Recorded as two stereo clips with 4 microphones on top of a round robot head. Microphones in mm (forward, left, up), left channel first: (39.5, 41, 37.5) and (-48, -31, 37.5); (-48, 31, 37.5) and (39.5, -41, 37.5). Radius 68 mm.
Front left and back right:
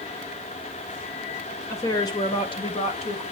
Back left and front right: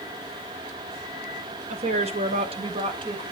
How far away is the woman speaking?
About 2.5 m.